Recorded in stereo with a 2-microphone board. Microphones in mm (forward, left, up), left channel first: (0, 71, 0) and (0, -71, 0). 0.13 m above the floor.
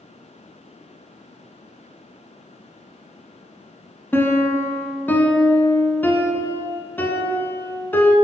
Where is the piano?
15° left (ahead or behind), 0.7 m.